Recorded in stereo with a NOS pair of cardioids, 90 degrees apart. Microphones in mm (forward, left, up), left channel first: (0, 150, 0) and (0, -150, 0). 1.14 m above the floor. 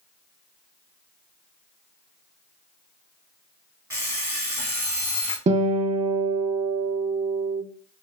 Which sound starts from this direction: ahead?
An alarm clock, at 3.9 s.